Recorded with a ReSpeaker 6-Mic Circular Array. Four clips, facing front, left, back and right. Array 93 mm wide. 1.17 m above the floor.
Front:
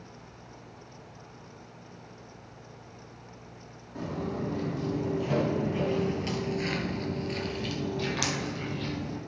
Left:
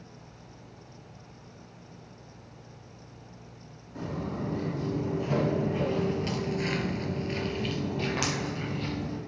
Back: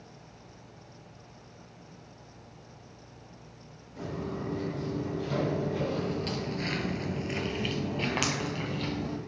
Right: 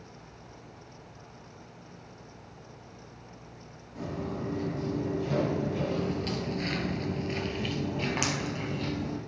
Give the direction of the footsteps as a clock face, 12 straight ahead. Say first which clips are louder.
Left 1 dB, front 2 dB; 11 o'clock.